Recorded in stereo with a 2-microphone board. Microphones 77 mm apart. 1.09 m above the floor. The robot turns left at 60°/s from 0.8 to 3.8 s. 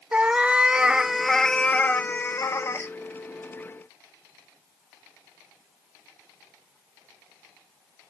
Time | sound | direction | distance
0.1 | a cat meowing | 155° right | 0.5 m